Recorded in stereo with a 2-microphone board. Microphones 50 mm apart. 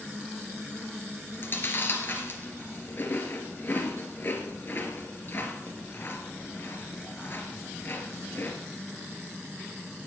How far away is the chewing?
About 2.5 m.